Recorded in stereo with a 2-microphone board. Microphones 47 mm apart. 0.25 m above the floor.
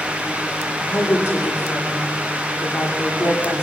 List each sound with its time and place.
0.8 s a woman speaking: 85° left, 8 m